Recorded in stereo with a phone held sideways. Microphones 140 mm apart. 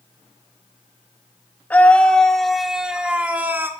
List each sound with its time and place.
1.7 s a scream: 10° left (ahead or behind), 2.5 m; by 3.7 s 15° right (ahead or behind), 2.5 m